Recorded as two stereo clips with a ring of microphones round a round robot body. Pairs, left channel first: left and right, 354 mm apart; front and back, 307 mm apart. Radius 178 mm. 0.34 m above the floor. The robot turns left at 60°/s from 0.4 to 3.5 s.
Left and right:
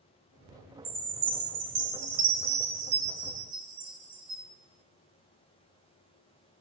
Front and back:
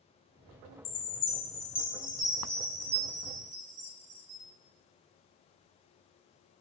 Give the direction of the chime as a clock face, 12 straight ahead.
12 o'clock.